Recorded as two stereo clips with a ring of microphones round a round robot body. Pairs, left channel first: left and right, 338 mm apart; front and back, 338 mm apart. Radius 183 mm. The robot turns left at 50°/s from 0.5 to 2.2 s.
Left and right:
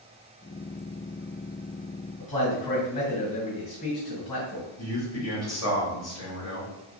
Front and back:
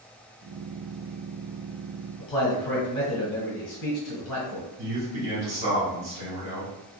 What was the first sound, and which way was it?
A man speaking, 20° left.